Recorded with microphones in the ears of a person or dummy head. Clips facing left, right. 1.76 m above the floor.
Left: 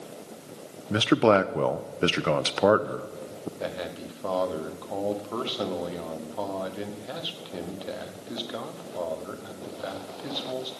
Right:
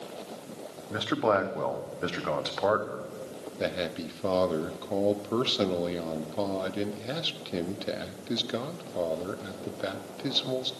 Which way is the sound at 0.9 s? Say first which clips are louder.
Left 6 dB; 45° left (ahead or behind).